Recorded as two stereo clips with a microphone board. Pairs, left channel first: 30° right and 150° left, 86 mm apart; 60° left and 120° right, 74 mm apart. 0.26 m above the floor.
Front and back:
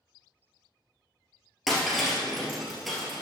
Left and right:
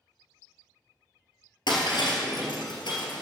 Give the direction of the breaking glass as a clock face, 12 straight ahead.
10 o'clock.